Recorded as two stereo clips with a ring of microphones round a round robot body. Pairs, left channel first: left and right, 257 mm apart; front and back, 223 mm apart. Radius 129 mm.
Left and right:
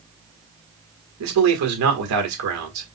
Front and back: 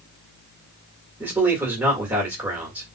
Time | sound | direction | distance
1.2 | a man speaking | 95° right | 1.8 m